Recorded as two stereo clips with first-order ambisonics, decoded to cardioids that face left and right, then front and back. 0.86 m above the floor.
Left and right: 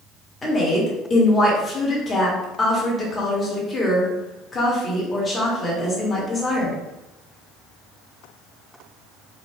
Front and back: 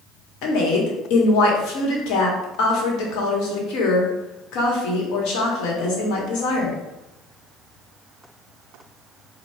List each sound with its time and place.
0.4 s a woman speaking: 15° left, 1.4 m